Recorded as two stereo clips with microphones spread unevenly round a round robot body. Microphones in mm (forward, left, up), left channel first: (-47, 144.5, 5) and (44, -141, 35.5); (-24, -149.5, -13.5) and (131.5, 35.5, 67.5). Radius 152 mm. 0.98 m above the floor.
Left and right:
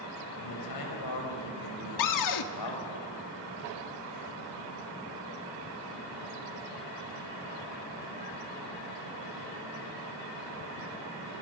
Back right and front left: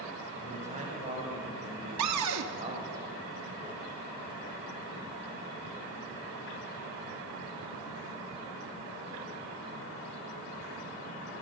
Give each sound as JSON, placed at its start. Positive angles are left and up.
{"t": 0.4, "sound": "a man speaking", "azimuth_deg": 120, "distance_m": 6.5}
{"t": 2.0, "sound": "a cupboard door", "azimuth_deg": 85, "distance_m": 1.4}